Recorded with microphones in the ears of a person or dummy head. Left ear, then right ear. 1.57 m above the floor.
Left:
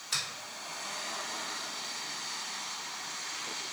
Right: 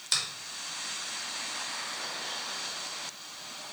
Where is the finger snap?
75° right (ahead or behind), 1.9 m.